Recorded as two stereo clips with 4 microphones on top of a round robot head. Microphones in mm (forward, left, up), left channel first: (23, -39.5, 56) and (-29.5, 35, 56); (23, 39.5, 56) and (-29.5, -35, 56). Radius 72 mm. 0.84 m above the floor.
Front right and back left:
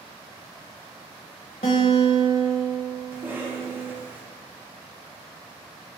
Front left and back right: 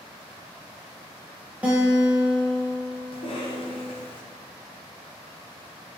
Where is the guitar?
50° right, 0.8 m.